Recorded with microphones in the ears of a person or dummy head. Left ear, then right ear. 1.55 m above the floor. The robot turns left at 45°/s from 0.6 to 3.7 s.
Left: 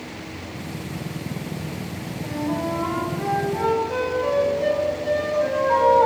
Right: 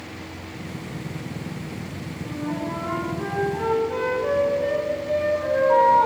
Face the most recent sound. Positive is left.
turn(degrees=20)